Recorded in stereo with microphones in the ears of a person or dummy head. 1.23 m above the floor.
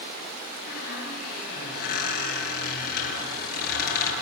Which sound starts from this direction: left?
A squeak, at 0.7 s.